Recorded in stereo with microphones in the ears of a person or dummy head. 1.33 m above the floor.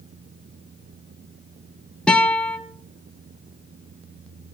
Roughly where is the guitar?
Centre.